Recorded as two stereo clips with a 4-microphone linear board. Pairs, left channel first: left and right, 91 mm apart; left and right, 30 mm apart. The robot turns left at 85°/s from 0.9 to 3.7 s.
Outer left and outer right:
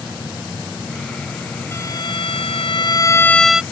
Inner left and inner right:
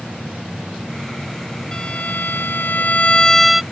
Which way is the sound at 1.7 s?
155° left.